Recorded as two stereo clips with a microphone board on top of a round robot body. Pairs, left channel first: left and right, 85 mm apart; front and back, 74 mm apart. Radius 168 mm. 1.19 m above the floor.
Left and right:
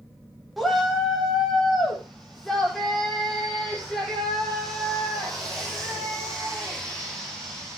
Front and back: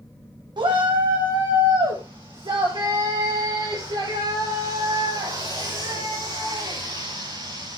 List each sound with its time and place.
0.6 s a shout: straight behind, 3 m; by 7.8 s 175° left, 10 m